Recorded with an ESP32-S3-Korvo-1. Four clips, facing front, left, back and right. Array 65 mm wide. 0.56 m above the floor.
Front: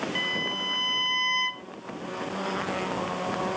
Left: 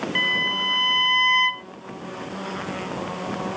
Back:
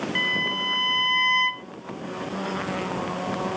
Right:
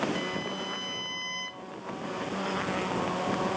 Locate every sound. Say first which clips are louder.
0.1 s a violin: left 9 dB, back 4 dB; 120° left